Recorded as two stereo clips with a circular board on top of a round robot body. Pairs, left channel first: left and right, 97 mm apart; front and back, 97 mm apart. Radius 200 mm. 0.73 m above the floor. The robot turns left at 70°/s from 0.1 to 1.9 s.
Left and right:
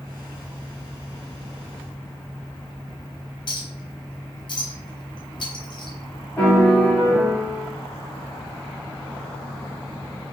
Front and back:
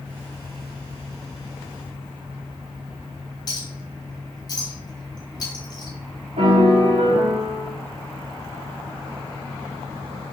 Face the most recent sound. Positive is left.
turn(degrees=170)